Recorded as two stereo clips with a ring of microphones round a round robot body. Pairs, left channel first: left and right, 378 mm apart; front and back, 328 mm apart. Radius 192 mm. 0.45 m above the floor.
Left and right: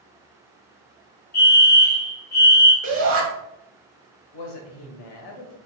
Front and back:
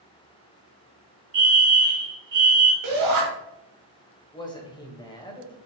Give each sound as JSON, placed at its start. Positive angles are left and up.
{"t": 1.3, "sound": "a fire alarm", "azimuth_deg": 145, "distance_m": 2.5}
{"t": 2.8, "sound": "a shout", "azimuth_deg": -145, "distance_m": 3.0}
{"t": 4.3, "sound": "a woman speaking", "azimuth_deg": 75, "distance_m": 1.9}